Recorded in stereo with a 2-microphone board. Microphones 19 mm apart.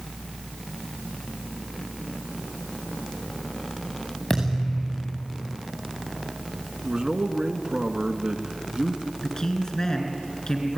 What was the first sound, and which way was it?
A thud, 25° left (ahead or behind).